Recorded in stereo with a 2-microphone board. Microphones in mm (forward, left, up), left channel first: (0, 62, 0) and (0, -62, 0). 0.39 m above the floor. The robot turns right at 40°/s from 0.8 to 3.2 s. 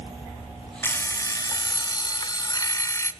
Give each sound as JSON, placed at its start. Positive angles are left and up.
{"t": 0.8, "sound": "an alarm clock", "azimuth_deg": 40, "distance_m": 0.7}